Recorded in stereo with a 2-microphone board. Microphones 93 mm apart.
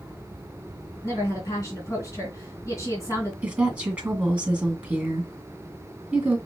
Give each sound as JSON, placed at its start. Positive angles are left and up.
{"t": 1.0, "sound": "a woman speaking", "side_deg": 35, "distance_m": 2.0}
{"t": 3.4, "sound": "a woman speaking", "side_deg": -10, "distance_m": 1.9}